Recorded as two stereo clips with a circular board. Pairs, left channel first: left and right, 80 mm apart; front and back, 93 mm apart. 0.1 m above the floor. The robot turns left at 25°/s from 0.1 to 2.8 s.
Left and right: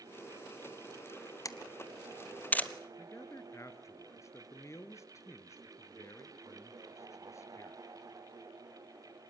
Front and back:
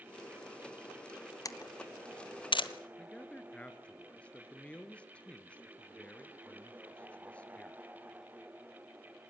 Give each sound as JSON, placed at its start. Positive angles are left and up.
{"t": 1.4, "sound": "a camera shutter", "azimuth_deg": 45, "distance_m": 1.1}
{"t": 3.0, "sound": "a man speaking", "azimuth_deg": 70, "distance_m": 2.0}